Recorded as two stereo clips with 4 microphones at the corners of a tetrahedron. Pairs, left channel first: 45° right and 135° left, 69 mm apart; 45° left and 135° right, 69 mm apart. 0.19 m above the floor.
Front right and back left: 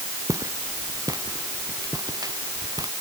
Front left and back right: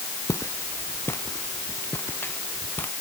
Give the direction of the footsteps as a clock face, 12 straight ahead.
9 o'clock.